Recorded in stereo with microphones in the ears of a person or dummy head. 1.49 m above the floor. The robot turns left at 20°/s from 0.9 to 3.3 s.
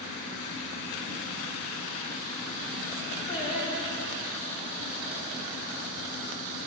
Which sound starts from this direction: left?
Singing, at 3.3 s.